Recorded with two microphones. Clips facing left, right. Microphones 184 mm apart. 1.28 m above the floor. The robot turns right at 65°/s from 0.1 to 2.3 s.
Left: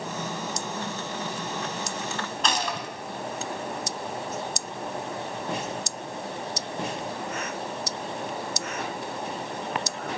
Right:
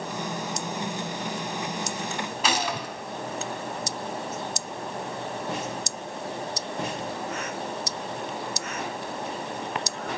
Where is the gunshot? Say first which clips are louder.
Right 2 dB; 10° right (ahead or behind), 3 m.